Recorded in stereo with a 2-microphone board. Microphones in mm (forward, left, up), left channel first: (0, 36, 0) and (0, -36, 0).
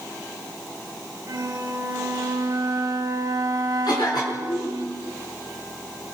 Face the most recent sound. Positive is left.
turn(degrees=75)  # may be behind; listen again after turning